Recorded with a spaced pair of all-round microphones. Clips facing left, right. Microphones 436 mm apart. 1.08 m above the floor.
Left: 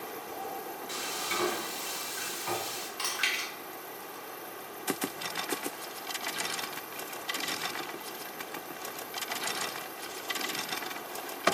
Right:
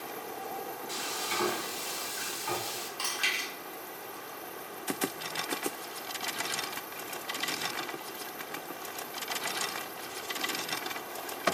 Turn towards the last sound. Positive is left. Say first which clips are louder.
# even
turn(degrees=35)  # may be behind; listen again after turning